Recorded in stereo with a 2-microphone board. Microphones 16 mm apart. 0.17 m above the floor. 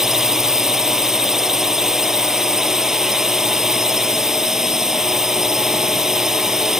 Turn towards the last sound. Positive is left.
turn(degrees=-30)  # may be behind; listen again after turning